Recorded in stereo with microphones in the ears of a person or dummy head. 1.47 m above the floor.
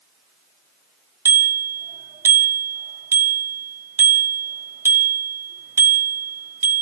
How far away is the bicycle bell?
About 2 m.